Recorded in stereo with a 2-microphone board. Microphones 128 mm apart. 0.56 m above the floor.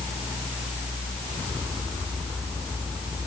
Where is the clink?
I don't hear a clink.